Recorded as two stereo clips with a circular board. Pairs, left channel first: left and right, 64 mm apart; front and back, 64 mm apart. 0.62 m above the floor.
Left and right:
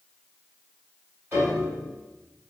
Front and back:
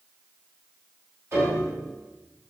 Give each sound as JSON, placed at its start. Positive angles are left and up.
{"t": 1.3, "sound": "a piano", "azimuth_deg": -135, "distance_m": 1.8}